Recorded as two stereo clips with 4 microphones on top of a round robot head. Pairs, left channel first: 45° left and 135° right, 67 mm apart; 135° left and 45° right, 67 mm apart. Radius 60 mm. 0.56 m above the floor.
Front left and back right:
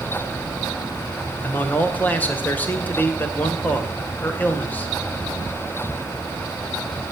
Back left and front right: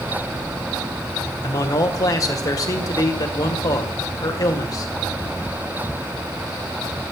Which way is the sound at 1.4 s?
105° left.